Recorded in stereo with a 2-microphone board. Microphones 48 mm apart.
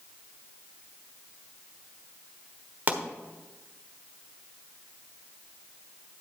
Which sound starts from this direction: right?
A pop, at 2.9 s.